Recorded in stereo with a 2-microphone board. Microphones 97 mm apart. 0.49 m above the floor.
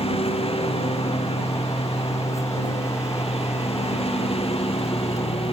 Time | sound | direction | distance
0.0 | a lawn mower | 80° left | ?